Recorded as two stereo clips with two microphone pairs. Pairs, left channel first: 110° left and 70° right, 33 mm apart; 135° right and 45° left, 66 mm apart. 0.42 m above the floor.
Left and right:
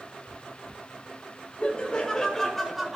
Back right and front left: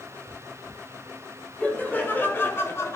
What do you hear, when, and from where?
1.6 s laughter: 165° left, 1.9 m; by 3.0 s 145° right, 1.4 m